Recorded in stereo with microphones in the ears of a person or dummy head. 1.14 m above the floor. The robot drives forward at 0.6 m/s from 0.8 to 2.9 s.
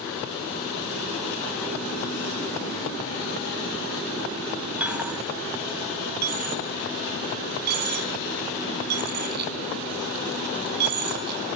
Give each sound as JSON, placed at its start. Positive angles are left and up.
{"t": 4.8, "sound": "a dropped coin", "side_deg": -5, "distance_m": 0.5}
{"t": 6.2, "sound": "a dropped coin", "side_deg": -55, "distance_m": 3.5}